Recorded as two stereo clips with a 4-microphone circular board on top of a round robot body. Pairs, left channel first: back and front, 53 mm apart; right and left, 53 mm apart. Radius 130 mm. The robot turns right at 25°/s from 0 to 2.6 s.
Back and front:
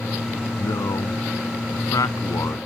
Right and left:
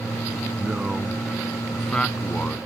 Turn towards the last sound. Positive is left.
turn(degrees=-150)